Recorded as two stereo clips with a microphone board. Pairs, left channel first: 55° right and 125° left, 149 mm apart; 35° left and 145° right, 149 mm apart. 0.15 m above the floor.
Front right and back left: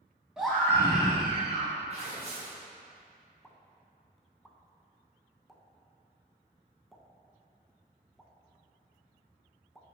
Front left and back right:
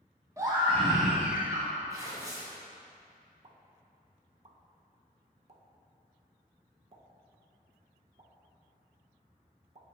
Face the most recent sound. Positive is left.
turn(degrees=-150)